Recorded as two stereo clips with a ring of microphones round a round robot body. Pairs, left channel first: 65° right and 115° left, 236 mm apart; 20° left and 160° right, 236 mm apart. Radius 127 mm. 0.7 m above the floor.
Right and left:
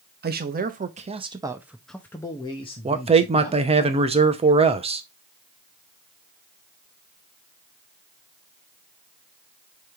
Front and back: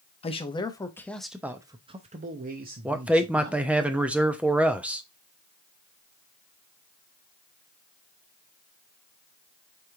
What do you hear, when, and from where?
0.2 s a man speaking: 80° left, 1.0 m; by 3.9 s 120° right, 1.4 m
2.9 s a man speaking: 125° left, 0.7 m